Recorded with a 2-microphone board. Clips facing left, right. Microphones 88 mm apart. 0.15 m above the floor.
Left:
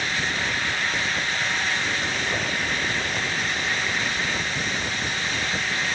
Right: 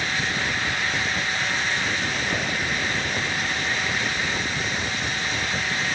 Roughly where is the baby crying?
I don't hear a baby crying.